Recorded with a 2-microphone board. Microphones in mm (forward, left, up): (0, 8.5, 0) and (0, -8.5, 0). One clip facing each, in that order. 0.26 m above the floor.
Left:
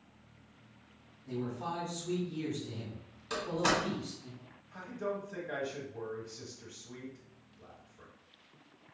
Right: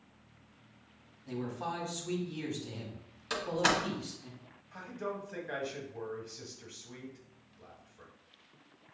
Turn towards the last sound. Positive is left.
turn(degrees=-20)  # may be behind; listen again after turning